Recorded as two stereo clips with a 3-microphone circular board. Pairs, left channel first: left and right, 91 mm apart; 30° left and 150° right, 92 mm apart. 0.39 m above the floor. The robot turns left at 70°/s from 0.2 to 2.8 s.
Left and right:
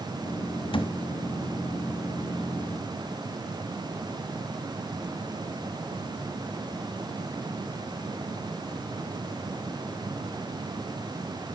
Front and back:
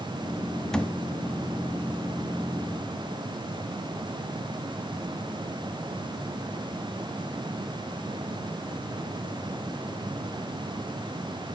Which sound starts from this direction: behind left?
A thud, at 0.7 s.